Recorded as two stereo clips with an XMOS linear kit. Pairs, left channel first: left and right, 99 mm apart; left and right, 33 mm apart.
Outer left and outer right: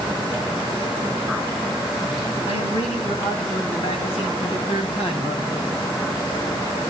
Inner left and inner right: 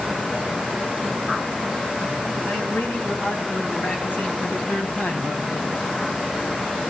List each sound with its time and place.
2.5 s a man speaking: 80° left, 5.5 m; by 5.7 s 65° left (ahead or behind), 6 m